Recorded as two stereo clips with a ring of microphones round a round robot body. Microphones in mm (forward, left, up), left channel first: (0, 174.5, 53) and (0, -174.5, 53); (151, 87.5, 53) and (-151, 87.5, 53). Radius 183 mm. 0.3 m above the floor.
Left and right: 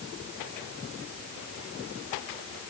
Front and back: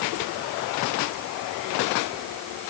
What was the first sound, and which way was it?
Only background noise.